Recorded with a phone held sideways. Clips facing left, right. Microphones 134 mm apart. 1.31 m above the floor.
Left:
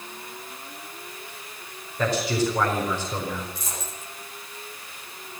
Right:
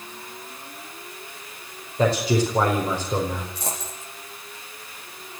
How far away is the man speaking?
About 5 m.